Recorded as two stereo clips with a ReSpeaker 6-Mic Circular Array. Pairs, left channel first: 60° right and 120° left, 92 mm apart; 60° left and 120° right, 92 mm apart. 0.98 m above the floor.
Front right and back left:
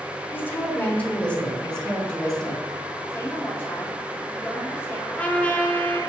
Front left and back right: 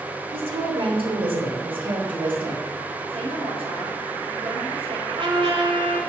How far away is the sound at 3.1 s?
About 5 m.